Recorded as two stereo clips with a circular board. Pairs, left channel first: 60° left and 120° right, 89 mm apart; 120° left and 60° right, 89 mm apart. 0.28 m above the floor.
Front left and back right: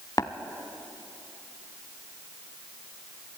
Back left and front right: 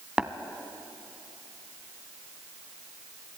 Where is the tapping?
15° left, 0.8 m.